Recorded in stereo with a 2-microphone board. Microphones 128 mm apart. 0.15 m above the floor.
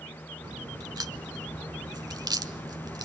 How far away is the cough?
I don't hear a cough.